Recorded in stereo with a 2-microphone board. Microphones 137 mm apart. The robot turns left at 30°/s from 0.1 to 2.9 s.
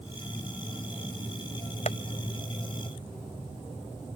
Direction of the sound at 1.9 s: 60° left (ahead or behind).